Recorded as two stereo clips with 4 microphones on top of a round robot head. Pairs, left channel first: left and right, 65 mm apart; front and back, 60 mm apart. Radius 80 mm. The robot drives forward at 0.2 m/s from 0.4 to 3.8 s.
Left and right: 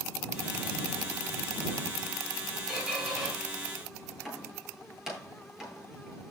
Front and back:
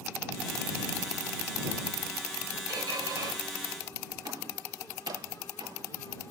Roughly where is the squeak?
Behind.